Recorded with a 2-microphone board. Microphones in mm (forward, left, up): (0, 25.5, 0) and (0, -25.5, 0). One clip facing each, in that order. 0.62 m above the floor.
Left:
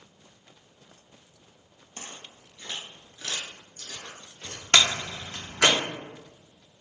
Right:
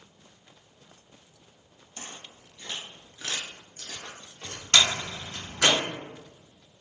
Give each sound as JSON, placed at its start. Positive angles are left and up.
{"t": 2.0, "sound": "footsteps", "side_deg": 40, "distance_m": 1.0}
{"t": 4.7, "sound": "a door slam", "side_deg": 45, "distance_m": 0.7}